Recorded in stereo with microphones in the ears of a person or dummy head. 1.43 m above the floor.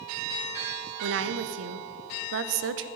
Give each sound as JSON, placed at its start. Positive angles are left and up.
{"t": 1.0, "sound": "a woman speaking", "side_deg": -70, "distance_m": 0.7}